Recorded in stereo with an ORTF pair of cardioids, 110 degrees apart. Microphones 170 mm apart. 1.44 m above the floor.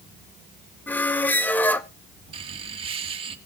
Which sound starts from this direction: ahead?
A squeak, at 0.9 s.